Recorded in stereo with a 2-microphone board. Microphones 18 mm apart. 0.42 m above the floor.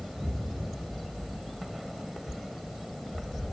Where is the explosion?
35° right (ahead or behind), 0.5 m.